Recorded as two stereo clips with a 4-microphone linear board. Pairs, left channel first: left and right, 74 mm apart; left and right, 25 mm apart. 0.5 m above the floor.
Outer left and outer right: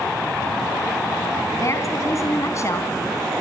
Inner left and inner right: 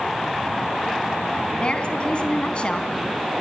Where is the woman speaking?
40° left (ahead or behind), 3.5 m.